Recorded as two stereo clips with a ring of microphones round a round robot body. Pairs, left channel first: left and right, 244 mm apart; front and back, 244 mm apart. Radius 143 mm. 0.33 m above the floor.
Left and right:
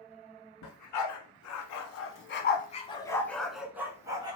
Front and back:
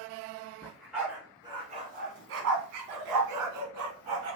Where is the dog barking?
85° left, 1.3 m; by 4.4 s 165° right, 1.3 m.